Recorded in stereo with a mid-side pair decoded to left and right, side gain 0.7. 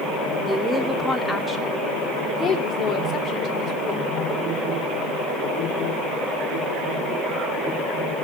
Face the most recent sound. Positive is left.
turn(degrees=40)